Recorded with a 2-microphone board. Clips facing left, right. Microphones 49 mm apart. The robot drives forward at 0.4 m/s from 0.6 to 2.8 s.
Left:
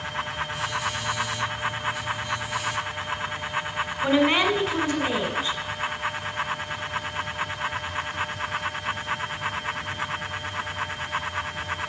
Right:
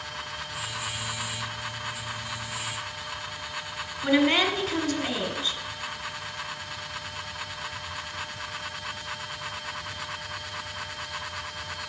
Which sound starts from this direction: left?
A woman speaking, at 4.0 s.